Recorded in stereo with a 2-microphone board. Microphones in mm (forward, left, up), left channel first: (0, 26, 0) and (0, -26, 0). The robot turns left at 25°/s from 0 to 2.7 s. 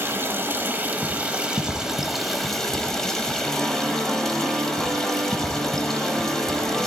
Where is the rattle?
No rattle in this recording.